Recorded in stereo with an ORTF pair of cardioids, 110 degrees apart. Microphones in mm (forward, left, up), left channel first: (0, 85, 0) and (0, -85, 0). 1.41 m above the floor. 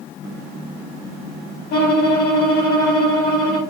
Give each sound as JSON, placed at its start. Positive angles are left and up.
{"t": 1.7, "sound": "a violin", "azimuth_deg": 70, "distance_m": 4.0}